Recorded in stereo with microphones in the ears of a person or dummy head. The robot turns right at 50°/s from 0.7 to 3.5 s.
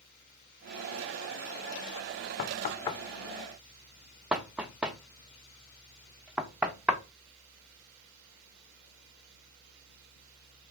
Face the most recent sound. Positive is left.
turn(degrees=-10)  # may be behind; listen again after turning